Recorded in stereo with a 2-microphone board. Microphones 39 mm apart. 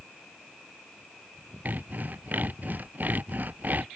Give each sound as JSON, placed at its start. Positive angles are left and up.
{"t": 1.6, "sound": "sawing", "side_deg": -45}